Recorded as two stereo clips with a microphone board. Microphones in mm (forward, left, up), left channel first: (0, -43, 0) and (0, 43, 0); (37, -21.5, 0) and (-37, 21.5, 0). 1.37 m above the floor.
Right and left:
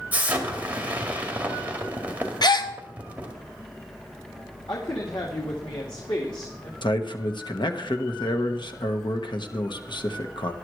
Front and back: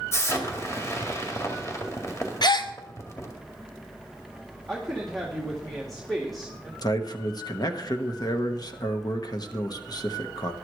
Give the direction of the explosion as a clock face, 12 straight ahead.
11 o'clock.